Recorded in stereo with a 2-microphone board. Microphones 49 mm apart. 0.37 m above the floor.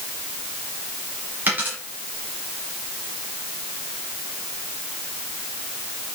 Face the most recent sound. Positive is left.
turn(degrees=-40)  # may be behind; listen again after turning